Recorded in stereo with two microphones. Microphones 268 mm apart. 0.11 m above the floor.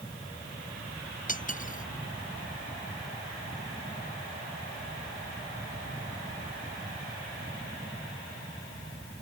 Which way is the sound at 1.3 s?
30° left (ahead or behind).